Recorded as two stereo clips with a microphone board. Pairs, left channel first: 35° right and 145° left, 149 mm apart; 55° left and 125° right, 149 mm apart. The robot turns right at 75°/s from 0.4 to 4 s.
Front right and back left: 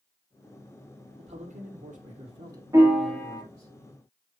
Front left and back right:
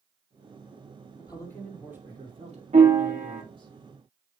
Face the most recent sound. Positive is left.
turn(degrees=-50)